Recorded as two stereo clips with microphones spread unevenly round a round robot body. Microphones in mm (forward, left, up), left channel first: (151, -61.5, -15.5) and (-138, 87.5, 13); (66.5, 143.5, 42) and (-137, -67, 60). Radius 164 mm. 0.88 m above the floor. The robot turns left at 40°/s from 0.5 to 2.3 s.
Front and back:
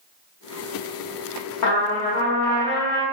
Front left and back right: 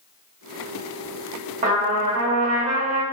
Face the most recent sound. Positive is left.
turn(degrees=-90)